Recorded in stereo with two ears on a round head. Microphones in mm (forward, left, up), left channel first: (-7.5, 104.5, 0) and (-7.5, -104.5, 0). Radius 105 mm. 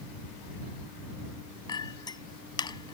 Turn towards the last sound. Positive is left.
turn(degrees=20)  # may be behind; listen again after turning